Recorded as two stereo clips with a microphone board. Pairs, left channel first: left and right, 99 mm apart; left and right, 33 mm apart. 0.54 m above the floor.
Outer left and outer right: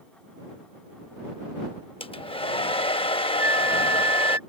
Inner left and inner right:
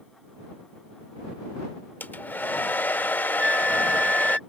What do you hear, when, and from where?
2.0 s a hair dryer: 70° left (ahead or behind)
3.4 s a flute: 30° right (ahead or behind)